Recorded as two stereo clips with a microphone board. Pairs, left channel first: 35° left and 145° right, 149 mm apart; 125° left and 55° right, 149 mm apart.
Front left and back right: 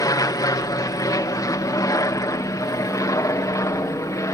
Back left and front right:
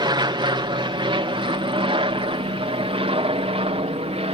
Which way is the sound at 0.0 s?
15° right.